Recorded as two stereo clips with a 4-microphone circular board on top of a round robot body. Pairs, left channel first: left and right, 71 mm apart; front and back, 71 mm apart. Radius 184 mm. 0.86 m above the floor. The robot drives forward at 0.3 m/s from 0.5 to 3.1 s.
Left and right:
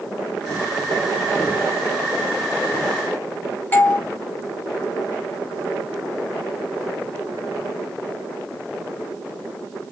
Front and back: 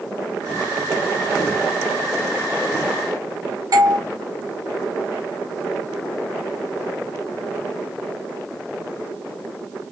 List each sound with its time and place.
3.7 s a doorbell: 155° left, 3 m